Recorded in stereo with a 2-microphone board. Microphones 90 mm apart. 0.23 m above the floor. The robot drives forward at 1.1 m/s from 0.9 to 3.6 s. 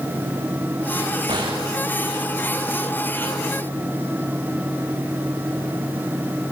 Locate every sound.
1.3 s a gunshot: 50° right (ahead or behind), 8 m; by 1.7 s 55° right (ahead or behind), 8 m